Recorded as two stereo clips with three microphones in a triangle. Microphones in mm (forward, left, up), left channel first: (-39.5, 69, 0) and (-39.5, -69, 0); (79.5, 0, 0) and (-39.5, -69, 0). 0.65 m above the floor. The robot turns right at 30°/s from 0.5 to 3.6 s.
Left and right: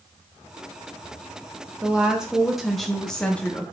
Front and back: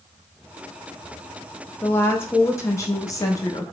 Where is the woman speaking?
25° right, 0.5 m; by 3.6 s 25° left, 0.5 m.